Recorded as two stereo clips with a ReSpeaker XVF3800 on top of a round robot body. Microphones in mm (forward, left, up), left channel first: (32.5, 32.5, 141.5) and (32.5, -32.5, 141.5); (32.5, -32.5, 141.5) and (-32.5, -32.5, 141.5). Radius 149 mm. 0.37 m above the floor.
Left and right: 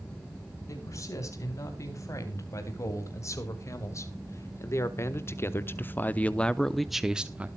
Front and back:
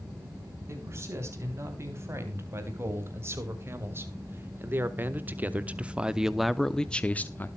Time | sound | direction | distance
0.7 | a man speaking | 130° left | 4.5 m